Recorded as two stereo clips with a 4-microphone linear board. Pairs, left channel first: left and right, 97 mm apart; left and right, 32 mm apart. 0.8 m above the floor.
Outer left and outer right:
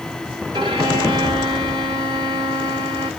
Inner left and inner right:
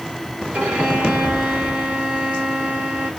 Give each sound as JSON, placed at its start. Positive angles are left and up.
{"t": 0.5, "sound": "a violin", "side_deg": -50, "distance_m": 1.6}